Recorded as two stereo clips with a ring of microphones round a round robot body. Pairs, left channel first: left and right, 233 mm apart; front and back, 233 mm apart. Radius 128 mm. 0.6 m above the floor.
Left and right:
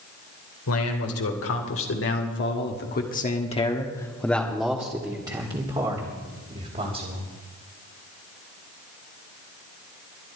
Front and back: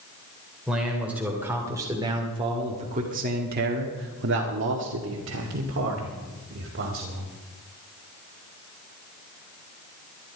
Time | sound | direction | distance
0.7 | a man speaking | 90° left | 2.5 m